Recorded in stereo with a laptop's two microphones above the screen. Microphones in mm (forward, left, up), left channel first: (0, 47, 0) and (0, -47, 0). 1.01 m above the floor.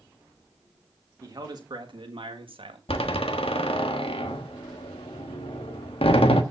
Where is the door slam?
85° left, 1.4 m.